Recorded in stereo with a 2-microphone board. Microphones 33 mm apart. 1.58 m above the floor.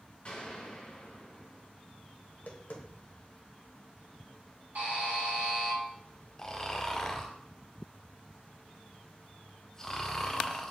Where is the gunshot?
35° left (ahead or behind), 2 m.